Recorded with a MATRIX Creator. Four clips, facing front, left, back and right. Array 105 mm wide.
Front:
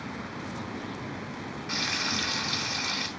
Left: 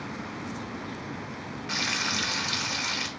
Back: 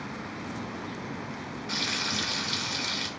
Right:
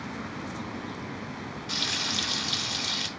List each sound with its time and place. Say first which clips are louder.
1.7 s frying: left 4 dB, front 1 dB; 75° left, 0.8 m